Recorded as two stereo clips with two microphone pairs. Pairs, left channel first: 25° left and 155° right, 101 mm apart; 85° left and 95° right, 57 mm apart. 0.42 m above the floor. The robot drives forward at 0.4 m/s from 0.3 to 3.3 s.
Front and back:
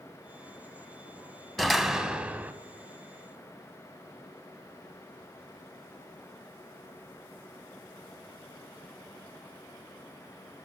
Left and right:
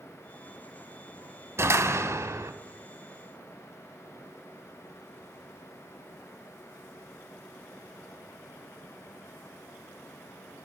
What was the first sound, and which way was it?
A door slam, 65° right.